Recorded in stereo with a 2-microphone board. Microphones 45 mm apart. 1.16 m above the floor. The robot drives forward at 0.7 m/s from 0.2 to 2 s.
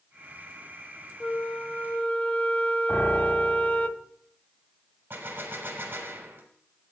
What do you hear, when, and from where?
1.2 s a flute: 25° left (ahead or behind), 0.7 m; by 3.9 s 35° left (ahead or behind), 0.6 m
2.9 s a piano: 85° left, 3.5 m
5.1 s a gunshot: 50° right (ahead or behind), 1.9 m